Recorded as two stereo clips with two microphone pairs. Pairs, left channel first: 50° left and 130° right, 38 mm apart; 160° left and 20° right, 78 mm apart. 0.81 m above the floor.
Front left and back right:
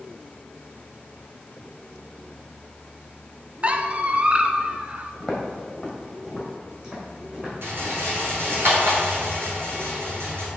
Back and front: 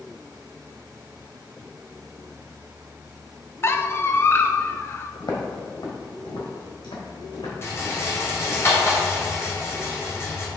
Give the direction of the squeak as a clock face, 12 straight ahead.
6 o'clock.